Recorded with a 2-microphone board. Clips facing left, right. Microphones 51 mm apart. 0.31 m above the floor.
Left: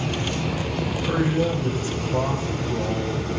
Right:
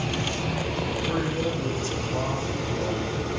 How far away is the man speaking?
About 1.9 m.